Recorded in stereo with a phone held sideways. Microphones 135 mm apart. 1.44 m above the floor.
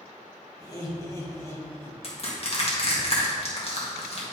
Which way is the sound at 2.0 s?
45° left (ahead or behind).